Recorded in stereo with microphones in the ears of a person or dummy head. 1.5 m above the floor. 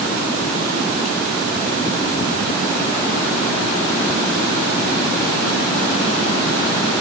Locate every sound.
Only background noise.